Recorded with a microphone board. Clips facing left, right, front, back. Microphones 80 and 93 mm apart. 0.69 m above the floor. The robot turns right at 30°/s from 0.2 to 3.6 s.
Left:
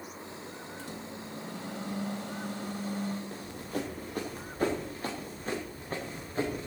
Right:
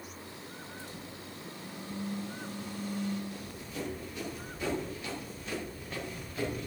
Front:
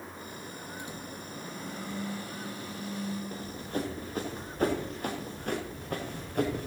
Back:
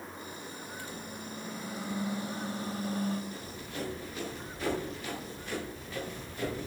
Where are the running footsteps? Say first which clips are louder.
Left 5 dB, front 6 dB; 45° left, 5.5 m; by 6.7 s 30° left, 5.5 m.